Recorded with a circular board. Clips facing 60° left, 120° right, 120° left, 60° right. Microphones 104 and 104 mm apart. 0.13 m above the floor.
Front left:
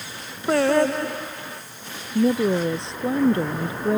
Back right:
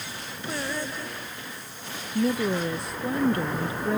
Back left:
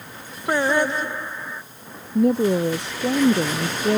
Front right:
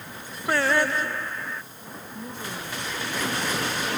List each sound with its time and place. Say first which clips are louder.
0.5 s singing: front left 14 dB, back left 3 dB; 45° left
2.1 s a woman speaking: front left 5 dB, back left 20 dB; 125° left